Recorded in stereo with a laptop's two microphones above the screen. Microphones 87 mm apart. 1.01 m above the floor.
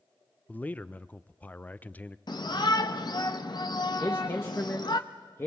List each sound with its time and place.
0.5 s a man speaking: 20° left (ahead or behind), 0.5 m
2.3 s a shout: 55° left (ahead or behind), 0.7 m
4.0 s a man speaking: 30° left (ahead or behind), 1.2 m